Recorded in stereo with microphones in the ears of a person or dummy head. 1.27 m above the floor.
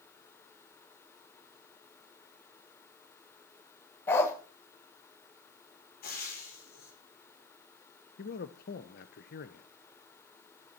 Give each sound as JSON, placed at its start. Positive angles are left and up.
{"t": 4.1, "sound": "a dog barking", "side_deg": 15, "distance_m": 1.8}
{"t": 6.0, "sound": "frying", "side_deg": 45, "distance_m": 5.0}
{"t": 8.2, "sound": "a man speaking", "side_deg": 50, "distance_m": 0.8}